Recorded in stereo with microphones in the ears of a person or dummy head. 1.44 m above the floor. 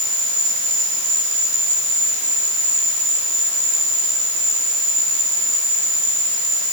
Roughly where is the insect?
Right.